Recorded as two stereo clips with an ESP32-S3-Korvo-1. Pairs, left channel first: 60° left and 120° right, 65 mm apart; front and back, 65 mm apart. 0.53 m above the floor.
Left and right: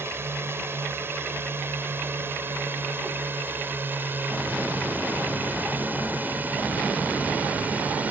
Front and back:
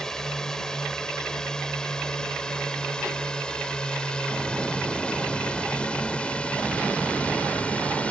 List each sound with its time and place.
0.0 s a drone: 80° right; by 8.1 s 65° right